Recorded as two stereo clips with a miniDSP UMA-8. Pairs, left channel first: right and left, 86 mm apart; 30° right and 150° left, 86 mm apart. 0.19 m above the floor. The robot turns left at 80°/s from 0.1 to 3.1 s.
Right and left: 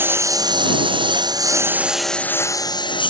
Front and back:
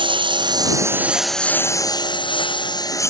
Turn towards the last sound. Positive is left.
turn(degrees=-85)